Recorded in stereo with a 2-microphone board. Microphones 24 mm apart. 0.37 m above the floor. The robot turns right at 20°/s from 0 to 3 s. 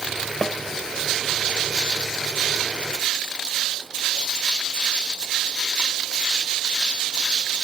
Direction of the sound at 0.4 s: 20° left (ahead or behind).